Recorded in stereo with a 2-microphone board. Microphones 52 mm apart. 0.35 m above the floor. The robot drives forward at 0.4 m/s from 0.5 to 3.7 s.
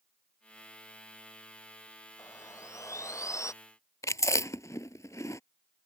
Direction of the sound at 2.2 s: 80° left.